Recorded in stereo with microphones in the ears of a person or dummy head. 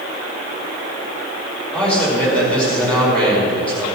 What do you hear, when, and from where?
1.7 s a man speaking: 5° left (ahead or behind), 4.5 m